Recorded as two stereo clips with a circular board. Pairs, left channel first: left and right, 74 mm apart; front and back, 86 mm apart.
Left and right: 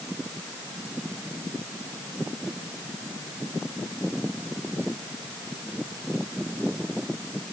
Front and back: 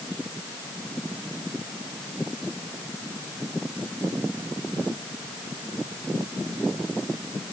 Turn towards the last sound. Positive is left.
No sound to turn to.